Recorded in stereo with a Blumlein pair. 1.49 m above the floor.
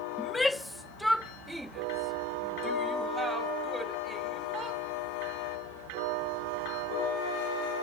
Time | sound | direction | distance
0.2 | a shout | 10° left | ?